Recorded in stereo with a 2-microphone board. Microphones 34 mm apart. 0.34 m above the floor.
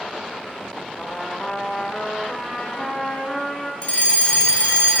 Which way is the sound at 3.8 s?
35° left (ahead or behind).